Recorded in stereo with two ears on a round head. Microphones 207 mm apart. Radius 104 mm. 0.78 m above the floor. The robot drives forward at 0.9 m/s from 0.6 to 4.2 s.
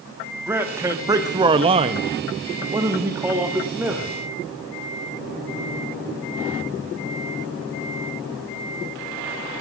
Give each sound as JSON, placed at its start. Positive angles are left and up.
{"t": 0.5, "sound": "a man speaking", "side_deg": -10, "distance_m": 1.4}